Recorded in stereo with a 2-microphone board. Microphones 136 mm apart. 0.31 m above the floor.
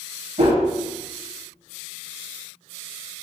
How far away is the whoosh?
About 1.0 m.